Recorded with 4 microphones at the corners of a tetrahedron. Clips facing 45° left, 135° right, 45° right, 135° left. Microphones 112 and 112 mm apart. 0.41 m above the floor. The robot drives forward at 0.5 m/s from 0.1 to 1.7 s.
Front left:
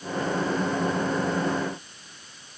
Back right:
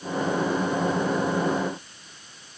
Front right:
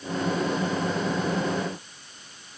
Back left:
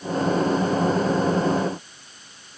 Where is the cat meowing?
No cat meowing in this recording.